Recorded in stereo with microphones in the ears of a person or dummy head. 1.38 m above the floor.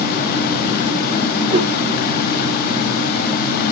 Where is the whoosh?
45° right (ahead or behind), 1.5 m.